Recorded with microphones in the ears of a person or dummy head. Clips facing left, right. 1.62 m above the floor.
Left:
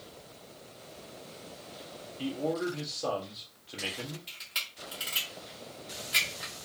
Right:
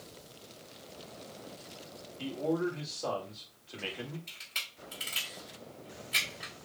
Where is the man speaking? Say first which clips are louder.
Even; 10° left (ahead or behind), 1.1 m.